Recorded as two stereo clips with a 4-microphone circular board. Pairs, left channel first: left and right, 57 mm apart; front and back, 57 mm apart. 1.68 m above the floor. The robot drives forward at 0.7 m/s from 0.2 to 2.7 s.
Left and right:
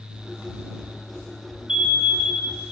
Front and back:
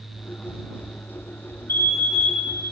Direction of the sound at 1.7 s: 20° right.